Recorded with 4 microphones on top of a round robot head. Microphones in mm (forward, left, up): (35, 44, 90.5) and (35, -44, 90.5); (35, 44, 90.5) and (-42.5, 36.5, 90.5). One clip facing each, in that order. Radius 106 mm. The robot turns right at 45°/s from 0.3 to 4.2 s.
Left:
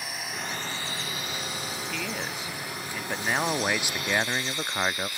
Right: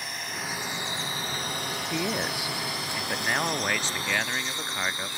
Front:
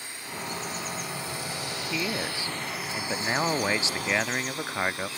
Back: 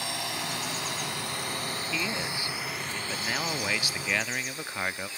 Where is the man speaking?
55° right; by 5.1 s 50° left.